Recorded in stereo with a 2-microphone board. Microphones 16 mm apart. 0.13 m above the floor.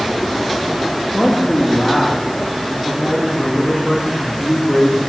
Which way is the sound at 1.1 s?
70° left (ahead or behind).